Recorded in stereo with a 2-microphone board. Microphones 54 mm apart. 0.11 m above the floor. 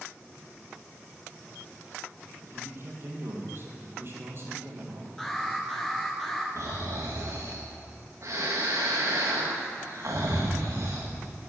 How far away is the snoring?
About 2.5 m.